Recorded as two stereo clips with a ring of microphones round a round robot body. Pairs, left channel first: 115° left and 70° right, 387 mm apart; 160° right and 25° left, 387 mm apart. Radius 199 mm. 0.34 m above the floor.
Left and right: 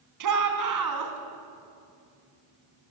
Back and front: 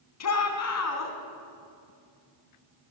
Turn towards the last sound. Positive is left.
turn(degrees=-110)